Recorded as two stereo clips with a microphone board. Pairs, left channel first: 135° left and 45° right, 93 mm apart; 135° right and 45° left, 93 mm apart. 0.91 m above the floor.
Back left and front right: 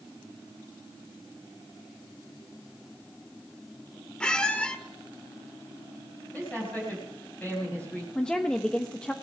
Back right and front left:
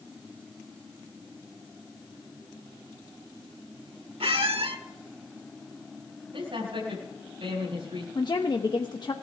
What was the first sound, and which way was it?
A squeak, 55° left.